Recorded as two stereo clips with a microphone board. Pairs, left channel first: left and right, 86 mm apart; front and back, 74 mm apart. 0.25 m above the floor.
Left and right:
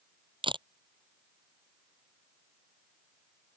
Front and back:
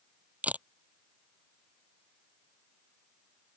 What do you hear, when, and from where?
0.4 s a camera shutter: 110° right